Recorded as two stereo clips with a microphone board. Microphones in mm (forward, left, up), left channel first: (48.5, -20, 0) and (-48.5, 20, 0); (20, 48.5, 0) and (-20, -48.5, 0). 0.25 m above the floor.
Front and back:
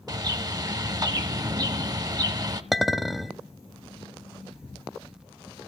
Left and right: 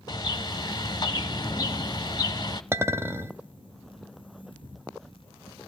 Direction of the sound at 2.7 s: 110° right.